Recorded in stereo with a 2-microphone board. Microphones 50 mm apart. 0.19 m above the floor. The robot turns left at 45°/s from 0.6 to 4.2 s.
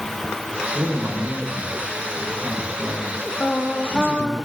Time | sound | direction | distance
0.8 | a man speaking | 95° right | 9 m
3.4 | singing | 30° left | 4.5 m